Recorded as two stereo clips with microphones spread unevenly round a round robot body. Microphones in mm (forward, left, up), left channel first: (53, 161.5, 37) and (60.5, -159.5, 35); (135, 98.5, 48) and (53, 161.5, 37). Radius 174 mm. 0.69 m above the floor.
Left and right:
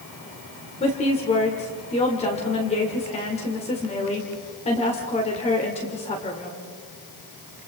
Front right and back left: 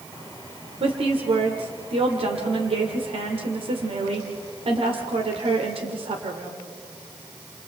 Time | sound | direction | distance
0.8 | a woman speaking | 160° left | 2 m